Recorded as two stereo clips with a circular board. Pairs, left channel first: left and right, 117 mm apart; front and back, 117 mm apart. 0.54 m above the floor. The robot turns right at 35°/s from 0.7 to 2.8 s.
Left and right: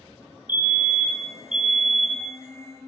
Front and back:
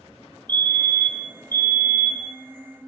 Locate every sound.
0.5 s a fire alarm: 50° right, 1.9 m; by 2.4 s 10° left, 1.9 m